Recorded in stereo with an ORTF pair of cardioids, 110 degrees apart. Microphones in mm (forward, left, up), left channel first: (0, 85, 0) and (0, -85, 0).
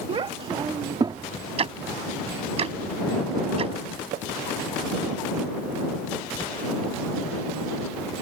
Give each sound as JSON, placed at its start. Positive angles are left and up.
{"t": 0.1, "sound": "a child speaking", "azimuth_deg": -35}
{"t": 1.6, "sound": "ticking", "azimuth_deg": -40}
{"t": 4.1, "sound": "tapping", "azimuth_deg": -65}